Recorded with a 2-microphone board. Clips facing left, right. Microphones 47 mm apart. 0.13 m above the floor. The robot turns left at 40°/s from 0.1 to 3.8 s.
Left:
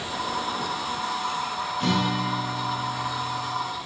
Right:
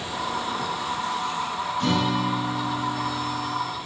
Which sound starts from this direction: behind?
A guitar, at 1.8 s.